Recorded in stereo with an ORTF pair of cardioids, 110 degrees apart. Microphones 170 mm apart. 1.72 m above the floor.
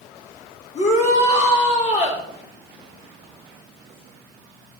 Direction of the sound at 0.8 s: 40° left.